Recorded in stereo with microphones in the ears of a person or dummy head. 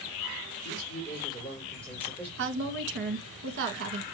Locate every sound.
0.6 s a man speaking: 20° left (ahead or behind), 4.5 m; by 2.3 s 10° left (ahead or behind), 4 m
2.4 s a woman speaking: 55° right (ahead or behind), 1.7 m